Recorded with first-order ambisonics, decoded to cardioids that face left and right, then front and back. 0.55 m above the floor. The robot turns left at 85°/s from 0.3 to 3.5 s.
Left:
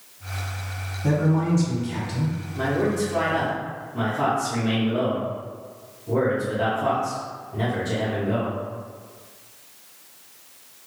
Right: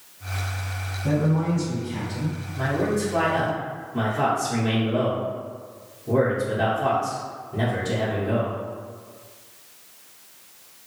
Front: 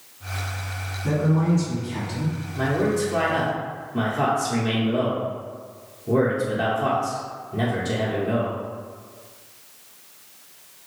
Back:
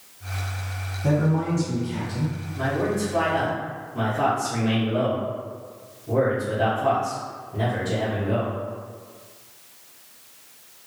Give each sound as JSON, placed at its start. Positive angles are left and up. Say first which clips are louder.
{"t": 1.0, "sound": "a man speaking", "louder": "left 1 dB, even", "azimuth_deg": 160, "distance_m": 1.1}
{"t": 2.5, "sound": "a man speaking", "louder": "left 1 dB, front 2 dB", "azimuth_deg": 50, "distance_m": 0.9}